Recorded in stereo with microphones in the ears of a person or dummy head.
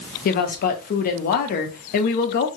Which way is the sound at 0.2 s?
45° left (ahead or behind).